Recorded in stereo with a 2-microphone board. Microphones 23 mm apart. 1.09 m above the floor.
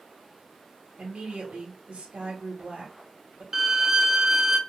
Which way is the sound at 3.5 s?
15° right (ahead or behind).